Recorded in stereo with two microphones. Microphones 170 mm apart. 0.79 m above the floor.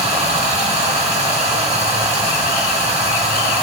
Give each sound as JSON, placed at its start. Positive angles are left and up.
{"t": 0.0, "sound": "running water", "side_deg": -40, "distance_m": 1.0}